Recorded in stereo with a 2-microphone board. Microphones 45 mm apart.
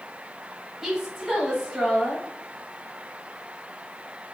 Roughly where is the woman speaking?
Centre.